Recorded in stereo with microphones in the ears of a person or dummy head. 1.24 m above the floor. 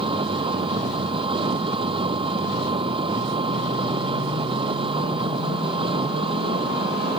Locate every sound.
0.0 s an engine running: 25° right (ahead or behind)